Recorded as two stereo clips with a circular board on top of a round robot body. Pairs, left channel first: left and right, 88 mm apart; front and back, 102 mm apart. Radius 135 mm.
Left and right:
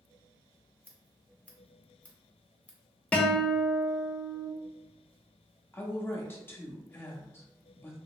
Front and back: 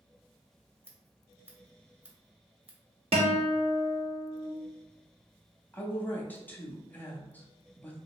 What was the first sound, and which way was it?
Scissors, 145° left.